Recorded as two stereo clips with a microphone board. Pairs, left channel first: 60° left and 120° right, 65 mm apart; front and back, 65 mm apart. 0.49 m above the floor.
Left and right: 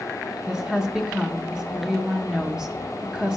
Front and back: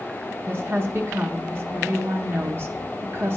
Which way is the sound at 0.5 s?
170° left.